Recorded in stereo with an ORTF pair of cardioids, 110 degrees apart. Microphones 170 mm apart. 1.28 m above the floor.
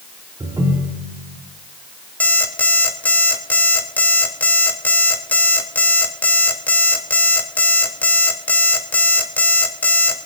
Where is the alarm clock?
10° left, 3 m.